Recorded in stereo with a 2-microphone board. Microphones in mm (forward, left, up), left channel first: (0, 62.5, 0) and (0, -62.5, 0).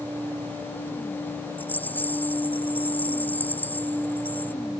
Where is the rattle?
15° left (ahead or behind).